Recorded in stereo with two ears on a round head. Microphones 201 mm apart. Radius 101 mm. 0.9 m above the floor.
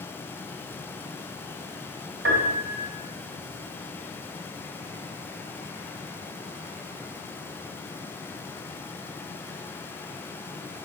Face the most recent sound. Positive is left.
turn(degrees=-55)  # may be behind; listen again after turning